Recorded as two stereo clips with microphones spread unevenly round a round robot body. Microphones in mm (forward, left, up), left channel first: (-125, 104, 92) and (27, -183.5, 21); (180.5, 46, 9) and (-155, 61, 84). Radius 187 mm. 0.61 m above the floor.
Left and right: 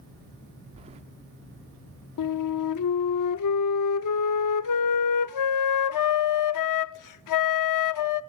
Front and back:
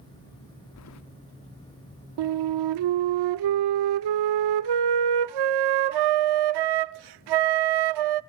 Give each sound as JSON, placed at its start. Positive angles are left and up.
{"t": 0.8, "sound": "keys jangling", "azimuth_deg": 0, "distance_m": 0.9}
{"t": 2.2, "sound": "a flute", "azimuth_deg": 155, "distance_m": 0.6}